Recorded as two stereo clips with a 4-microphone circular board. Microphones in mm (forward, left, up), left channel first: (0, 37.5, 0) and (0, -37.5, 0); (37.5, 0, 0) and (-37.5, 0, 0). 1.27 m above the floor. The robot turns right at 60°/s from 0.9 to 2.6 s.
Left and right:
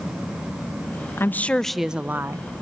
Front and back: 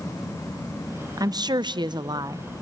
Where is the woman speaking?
145° left, 0.6 m; by 2.5 s 135° right, 0.6 m.